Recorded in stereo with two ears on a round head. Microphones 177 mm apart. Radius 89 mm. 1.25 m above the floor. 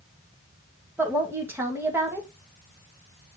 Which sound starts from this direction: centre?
A woman speaking, at 1.0 s.